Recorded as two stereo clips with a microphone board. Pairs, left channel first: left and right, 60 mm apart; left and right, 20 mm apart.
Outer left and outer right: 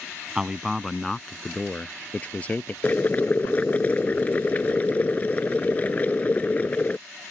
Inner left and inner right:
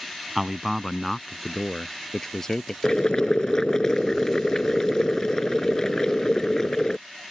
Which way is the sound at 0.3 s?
15° right (ahead or behind).